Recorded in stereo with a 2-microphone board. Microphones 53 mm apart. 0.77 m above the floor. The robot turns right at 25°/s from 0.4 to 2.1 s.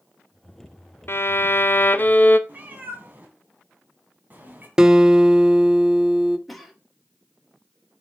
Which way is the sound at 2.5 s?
35° right (ahead or behind).